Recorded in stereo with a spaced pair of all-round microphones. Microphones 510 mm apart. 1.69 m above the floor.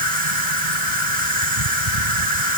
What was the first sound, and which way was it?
An insect, 70° right (ahead or behind).